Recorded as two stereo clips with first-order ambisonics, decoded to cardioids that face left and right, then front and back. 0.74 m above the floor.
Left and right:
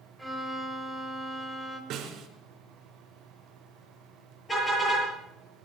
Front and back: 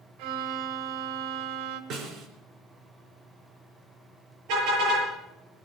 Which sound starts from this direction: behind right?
A snare drum, at 1.9 s.